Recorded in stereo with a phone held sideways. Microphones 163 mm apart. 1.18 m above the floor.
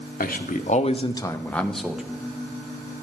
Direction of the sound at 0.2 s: 65° left (ahead or behind).